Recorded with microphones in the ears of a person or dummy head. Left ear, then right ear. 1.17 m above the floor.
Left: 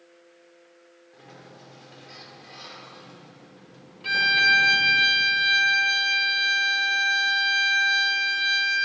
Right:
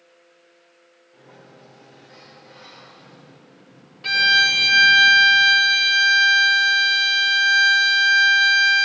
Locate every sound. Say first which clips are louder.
1.1 s a sliding door: even; 50° left (ahead or behind), 2.5 m
4.0 s a violin: right 4 dB; 25° right (ahead or behind), 0.8 m